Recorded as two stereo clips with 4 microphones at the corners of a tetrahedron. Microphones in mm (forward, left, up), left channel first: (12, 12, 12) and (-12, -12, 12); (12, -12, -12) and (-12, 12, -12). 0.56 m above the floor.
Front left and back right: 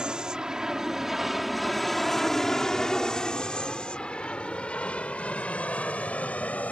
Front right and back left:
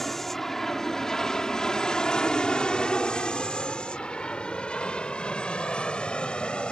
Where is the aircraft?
120° right; by 6.7 s 10° left.